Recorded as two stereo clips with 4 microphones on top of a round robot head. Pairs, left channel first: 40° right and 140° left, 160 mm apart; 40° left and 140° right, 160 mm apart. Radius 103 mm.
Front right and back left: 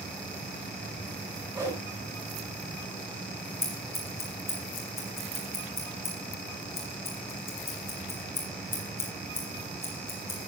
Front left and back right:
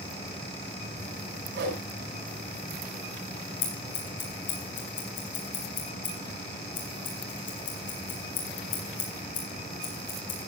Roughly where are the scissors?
Ahead left.